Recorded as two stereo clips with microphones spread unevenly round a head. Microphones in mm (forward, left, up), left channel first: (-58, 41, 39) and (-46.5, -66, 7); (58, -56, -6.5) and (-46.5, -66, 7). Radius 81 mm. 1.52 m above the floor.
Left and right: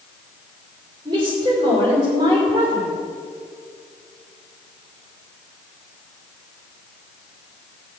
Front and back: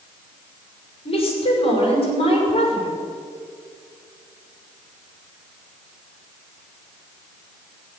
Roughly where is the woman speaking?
Ahead right.